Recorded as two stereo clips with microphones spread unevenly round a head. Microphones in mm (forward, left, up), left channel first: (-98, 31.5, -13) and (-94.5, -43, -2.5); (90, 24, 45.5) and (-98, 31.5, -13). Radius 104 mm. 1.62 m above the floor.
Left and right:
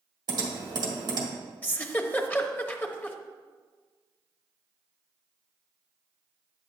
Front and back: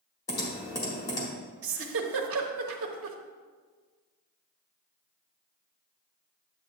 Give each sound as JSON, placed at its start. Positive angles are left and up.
{"t": 0.3, "sound": "typing on a keyboard", "azimuth_deg": -70, "distance_m": 1.5}
{"t": 1.6, "sound": "a giggle", "azimuth_deg": 160, "distance_m": 0.9}